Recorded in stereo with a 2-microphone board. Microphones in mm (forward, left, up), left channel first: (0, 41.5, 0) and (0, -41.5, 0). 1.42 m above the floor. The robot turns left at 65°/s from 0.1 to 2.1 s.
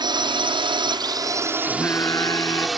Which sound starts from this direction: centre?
Singing, at 1.7 s.